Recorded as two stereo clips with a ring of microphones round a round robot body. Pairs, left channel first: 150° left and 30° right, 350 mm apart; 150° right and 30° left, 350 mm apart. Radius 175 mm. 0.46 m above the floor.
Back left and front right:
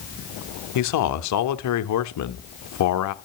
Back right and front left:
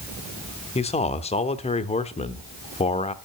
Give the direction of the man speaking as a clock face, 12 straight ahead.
7 o'clock.